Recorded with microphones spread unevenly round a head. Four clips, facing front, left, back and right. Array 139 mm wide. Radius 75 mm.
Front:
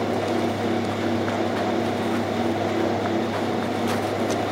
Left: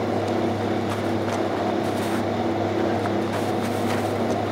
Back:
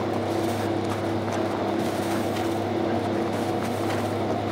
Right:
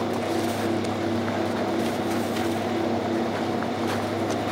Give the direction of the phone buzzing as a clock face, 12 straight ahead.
No phone buzzing in this recording.